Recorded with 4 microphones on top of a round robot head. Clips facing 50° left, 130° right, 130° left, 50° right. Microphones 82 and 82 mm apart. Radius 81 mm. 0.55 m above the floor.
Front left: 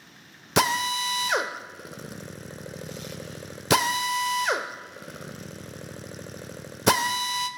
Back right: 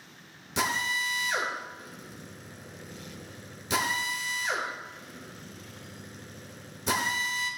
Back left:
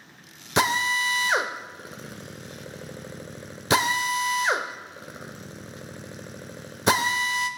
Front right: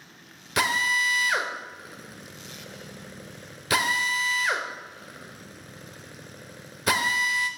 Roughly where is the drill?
Left.